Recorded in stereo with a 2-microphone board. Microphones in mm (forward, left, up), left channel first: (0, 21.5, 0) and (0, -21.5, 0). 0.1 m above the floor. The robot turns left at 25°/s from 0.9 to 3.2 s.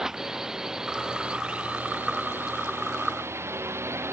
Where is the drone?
10° right; by 4.1 s 70° right.